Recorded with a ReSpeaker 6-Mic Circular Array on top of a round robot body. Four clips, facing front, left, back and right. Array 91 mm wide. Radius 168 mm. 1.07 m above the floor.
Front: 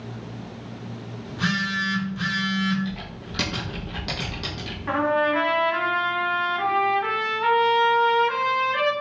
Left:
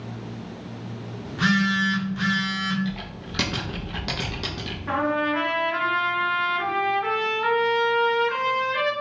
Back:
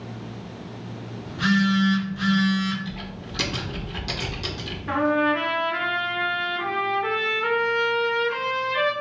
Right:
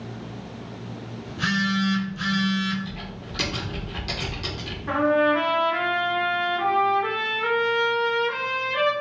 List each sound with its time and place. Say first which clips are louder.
1.2 s a phone buzzing: left 3 dB, back 5 dB; 85° left, 0.8 m
2.9 s typing on a keyboard: left 3 dB, front 1 dB; 65° left, 0.5 m
4.9 s a trumpet: right 4 dB, even; 5° left, 1.4 m